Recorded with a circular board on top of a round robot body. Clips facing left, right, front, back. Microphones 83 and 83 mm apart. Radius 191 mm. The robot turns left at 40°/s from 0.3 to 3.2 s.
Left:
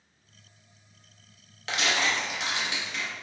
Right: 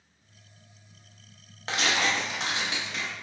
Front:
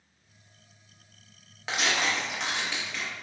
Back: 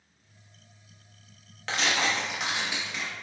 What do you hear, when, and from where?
1.7 s tearing paper: 70° right, 1.1 m; by 3.1 s 125° right, 1.1 m